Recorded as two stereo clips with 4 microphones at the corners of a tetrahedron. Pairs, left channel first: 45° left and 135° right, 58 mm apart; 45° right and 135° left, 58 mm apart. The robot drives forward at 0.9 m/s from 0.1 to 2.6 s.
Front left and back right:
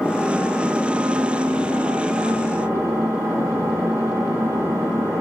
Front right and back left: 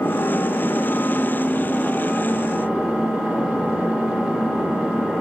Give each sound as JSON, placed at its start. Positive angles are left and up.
{"t": 0.0, "sound": "an engine running", "azimuth_deg": -40, "distance_m": 1.1}